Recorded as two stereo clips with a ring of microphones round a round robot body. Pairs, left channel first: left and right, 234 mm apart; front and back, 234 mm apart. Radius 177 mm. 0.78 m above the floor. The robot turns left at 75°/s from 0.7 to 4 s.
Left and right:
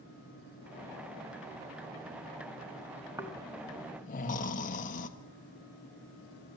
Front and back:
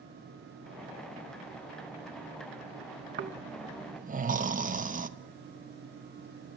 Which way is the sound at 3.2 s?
165° right.